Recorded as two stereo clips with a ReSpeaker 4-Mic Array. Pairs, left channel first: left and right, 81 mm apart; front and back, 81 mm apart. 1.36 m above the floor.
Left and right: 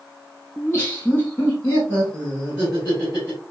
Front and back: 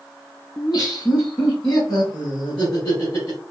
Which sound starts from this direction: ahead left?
Laughter, at 0.6 s.